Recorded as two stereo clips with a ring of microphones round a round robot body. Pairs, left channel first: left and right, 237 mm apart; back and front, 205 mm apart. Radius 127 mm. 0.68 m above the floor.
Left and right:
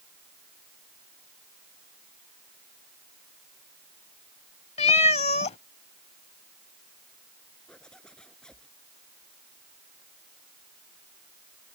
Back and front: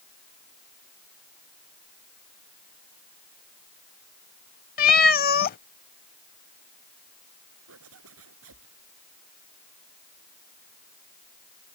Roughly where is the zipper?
Ahead.